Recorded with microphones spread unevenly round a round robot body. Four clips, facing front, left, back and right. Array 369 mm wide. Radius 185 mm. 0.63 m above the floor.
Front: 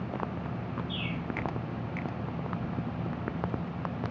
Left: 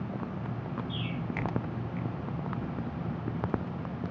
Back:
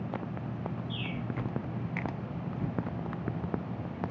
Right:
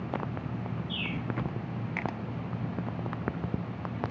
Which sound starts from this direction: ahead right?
A bird, at 0.9 s.